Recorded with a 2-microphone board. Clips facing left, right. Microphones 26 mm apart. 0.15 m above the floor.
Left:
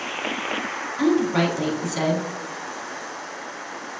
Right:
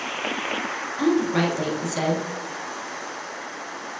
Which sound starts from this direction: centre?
A woman speaking, at 1.0 s.